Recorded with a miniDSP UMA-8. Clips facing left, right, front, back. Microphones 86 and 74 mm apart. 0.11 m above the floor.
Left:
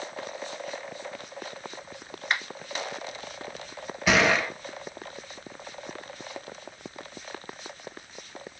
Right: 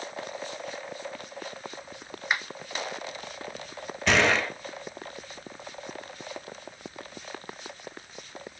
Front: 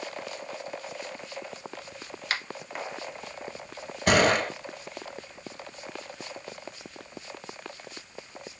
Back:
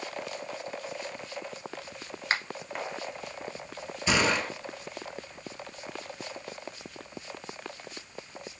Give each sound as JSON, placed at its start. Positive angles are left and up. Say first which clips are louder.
{"t": 2.3, "sound": "a finger snap", "louder": "even, back 2 dB", "azimuth_deg": -160, "distance_m": 1.0}
{"t": 4.1, "sound": "a gunshot", "louder": "left 1 dB, front 5 dB", "azimuth_deg": 5, "distance_m": 1.0}